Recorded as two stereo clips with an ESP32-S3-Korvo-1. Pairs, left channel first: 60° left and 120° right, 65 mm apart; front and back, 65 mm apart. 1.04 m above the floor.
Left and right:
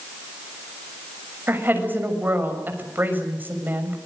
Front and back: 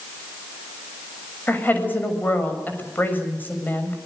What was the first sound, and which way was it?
A woman speaking, 60° right.